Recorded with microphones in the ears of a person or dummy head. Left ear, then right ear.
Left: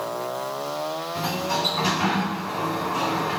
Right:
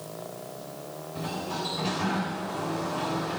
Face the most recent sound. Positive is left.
turn(degrees=65)  # may be behind; listen again after turning